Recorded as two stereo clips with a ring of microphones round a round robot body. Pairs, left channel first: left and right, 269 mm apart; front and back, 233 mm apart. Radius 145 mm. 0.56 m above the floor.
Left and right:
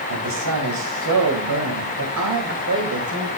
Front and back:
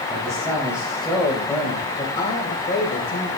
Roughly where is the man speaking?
Right.